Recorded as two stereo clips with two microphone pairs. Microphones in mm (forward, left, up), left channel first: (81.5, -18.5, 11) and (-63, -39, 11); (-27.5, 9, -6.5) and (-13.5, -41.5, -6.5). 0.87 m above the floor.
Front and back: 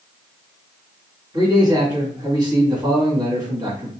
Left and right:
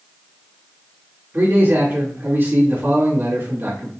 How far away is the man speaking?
About 1.7 m.